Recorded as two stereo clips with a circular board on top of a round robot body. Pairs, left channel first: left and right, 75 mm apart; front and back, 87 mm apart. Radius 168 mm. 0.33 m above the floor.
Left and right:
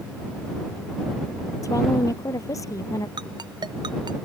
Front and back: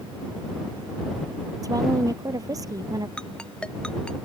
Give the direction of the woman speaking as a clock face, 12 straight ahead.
8 o'clock.